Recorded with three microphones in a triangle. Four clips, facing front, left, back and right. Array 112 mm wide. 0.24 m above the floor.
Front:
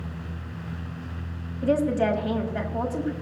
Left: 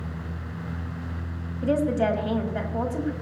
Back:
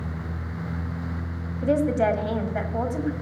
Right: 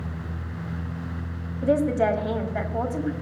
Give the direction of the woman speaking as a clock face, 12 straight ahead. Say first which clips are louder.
Right 2 dB, back 1 dB; 5 o'clock.